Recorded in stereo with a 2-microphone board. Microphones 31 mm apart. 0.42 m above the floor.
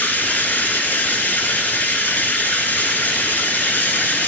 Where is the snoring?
I don't hear snoring.